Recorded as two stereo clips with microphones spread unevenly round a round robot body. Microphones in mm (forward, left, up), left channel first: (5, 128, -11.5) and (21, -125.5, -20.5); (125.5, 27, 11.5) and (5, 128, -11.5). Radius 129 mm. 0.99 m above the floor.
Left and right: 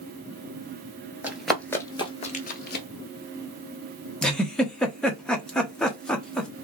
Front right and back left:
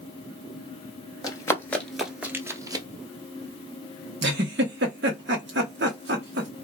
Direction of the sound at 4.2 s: Straight behind.